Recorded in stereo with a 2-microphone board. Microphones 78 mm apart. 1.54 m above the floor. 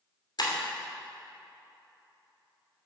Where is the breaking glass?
65° left (ahead or behind), 2.5 m.